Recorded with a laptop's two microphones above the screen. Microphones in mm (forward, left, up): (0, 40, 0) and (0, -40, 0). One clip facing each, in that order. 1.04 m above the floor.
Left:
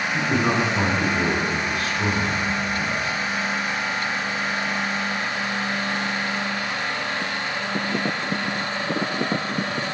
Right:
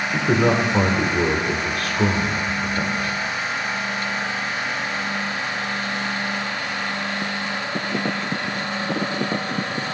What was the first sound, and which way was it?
A man speaking, 55° right (ahead or behind).